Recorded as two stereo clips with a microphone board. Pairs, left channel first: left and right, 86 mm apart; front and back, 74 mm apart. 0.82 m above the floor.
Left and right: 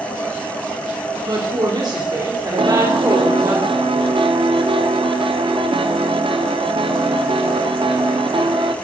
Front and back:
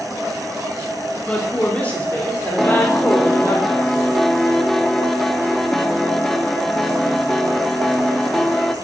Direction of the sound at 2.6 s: 85° right.